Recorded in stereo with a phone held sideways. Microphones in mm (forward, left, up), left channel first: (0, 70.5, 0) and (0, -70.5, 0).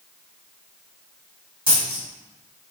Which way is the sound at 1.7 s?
40° right (ahead or behind).